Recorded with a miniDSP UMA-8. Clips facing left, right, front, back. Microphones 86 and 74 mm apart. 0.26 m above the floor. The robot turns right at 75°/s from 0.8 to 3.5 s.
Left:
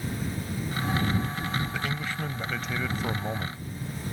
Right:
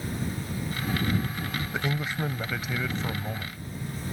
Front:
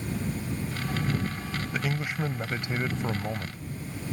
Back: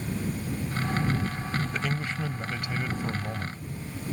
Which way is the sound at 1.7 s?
80° right.